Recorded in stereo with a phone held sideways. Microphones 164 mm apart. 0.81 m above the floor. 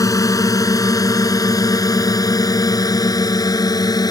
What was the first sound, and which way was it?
A drone, 20° left (ahead or behind).